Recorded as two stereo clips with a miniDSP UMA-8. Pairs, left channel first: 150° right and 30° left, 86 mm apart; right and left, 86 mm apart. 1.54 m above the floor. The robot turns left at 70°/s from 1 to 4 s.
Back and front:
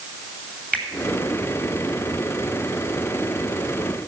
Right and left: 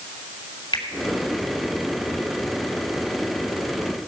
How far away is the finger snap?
About 2.5 m.